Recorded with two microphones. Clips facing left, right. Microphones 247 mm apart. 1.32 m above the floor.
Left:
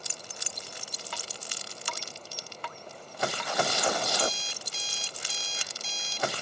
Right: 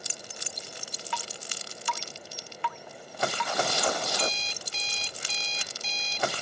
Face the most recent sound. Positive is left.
turn(degrees=-65)  # may be behind; listen again after turning